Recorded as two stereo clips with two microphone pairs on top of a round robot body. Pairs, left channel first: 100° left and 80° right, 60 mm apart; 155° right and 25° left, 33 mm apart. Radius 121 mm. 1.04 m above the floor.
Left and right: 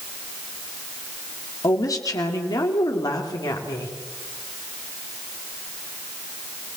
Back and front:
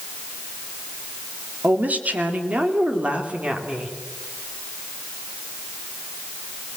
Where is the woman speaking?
65° left, 2.5 m; by 4.0 s 90° left, 3 m.